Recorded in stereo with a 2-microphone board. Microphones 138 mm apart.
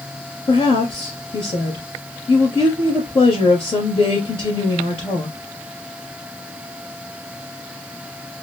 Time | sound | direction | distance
0.5 | a woman speaking | 40° left (ahead or behind) | 2.5 m